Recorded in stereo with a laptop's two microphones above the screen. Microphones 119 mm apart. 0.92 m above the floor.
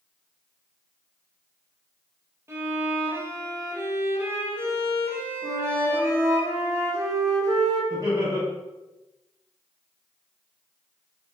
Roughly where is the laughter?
Right.